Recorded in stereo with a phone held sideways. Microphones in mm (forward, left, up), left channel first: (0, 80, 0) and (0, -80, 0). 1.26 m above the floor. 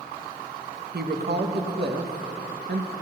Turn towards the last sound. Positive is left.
turn(degrees=-85)